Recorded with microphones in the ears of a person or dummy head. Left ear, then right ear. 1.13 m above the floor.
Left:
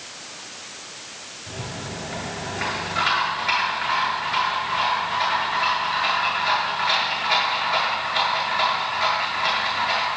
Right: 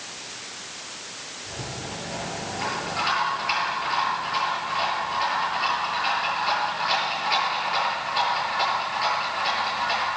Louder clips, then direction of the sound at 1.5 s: Left 2 dB; 80° left.